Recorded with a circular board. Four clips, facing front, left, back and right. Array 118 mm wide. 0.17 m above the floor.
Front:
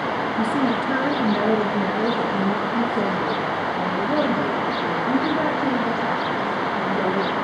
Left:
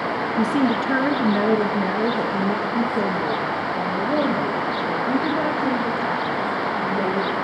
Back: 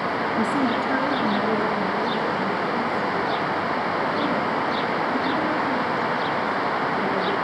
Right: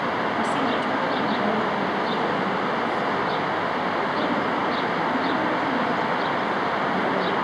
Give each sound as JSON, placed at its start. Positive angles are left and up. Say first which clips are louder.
{"t": 0.4, "sound": "a woman speaking", "louder": "left 7 dB, front 1 dB", "azimuth_deg": 100, "distance_m": 2.0}